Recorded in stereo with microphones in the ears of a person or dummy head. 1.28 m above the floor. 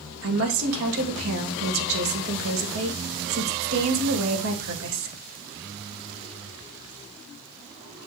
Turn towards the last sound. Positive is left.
turn(degrees=-75)  # may be behind; listen again after turning